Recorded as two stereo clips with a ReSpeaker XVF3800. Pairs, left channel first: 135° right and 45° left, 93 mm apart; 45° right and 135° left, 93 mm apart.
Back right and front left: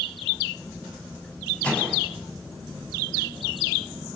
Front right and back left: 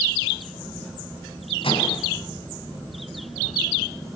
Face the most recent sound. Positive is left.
turn(degrees=-60)